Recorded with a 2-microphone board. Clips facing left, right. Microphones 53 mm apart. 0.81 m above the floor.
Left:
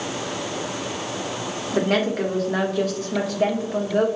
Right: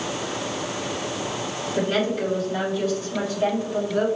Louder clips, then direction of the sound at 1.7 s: Left 2 dB; 75° left (ahead or behind).